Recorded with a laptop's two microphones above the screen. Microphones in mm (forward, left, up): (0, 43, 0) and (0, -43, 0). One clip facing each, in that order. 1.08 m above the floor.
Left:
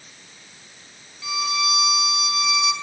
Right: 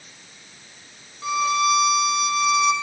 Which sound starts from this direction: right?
A violin, at 1.2 s.